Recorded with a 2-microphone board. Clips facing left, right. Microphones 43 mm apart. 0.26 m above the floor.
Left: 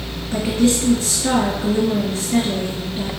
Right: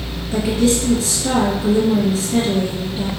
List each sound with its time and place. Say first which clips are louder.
0.3 s a woman speaking: right 1 dB; 35° left (ahead or behind), 2.5 m